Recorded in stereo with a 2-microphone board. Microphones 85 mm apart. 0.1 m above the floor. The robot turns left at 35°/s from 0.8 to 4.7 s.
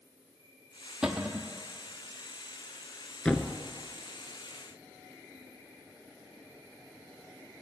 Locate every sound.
0.0 s an insect: 130° left, 6.5 m; by 7.6 s 5° right, 6.5 m
1.0 s a cupboard door: 10° right (ahead or behind), 1.0 m; by 1.5 s 25° right (ahead or behind), 1.0 m
3.2 s a thud: 10° left (ahead or behind), 0.7 m; by 3.5 s 15° left (ahead or behind), 0.7 m